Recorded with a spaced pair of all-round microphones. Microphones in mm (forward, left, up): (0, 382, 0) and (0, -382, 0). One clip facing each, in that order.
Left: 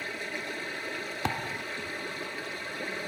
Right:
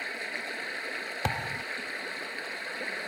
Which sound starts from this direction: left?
Running water, at 0.0 s.